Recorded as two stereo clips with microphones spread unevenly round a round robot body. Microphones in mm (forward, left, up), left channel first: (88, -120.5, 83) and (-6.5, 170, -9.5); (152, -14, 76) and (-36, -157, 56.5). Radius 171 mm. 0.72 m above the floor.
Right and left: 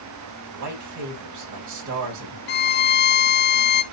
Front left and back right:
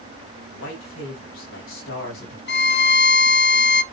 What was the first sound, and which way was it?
A man speaking, 85° left.